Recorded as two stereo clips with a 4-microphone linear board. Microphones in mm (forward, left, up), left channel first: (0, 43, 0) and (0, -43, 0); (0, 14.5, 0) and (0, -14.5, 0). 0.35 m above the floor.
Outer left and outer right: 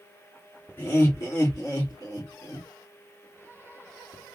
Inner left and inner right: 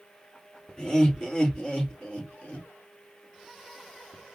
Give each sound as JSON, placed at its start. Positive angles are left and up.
{"t": 0.8, "sound": "laughter", "side_deg": 30, "distance_m": 3.5}